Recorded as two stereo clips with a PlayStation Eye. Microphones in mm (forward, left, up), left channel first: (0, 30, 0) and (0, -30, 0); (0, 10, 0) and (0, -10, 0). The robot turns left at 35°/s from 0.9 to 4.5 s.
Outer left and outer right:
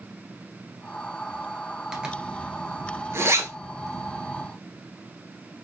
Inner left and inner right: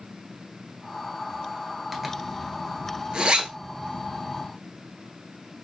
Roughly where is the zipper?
Centre.